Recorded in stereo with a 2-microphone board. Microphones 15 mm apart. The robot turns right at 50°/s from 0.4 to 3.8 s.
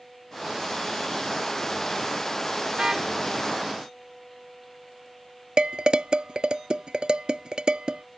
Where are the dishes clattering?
60° right (ahead or behind).